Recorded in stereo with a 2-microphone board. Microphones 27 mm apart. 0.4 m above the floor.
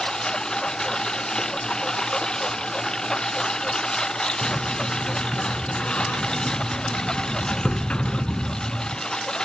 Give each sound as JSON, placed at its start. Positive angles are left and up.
{"t": 0.0, "sound": "a lawn mower", "side_deg": 30}
{"t": 4.4, "sound": "a sliding door", "side_deg": 50}